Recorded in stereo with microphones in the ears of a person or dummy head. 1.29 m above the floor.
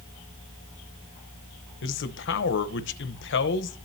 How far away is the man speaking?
About 1.0 m.